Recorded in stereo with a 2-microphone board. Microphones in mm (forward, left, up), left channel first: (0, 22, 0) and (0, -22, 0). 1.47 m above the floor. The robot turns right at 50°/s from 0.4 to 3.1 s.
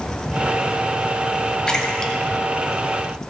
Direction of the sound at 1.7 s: 20° left (ahead or behind).